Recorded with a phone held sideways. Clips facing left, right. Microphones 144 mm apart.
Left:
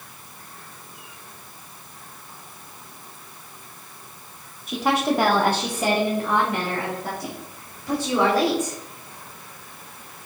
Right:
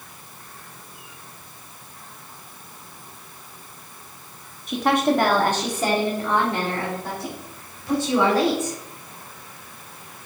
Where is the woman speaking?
Centre (ahead or behind), 0.8 m; by 8.8 s 15° left (ahead or behind), 3.5 m.